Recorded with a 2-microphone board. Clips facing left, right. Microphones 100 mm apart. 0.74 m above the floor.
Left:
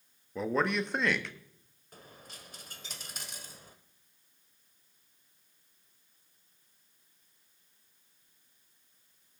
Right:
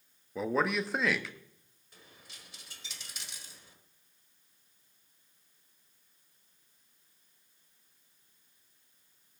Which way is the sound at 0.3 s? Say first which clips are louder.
Even; centre (ahead or behind).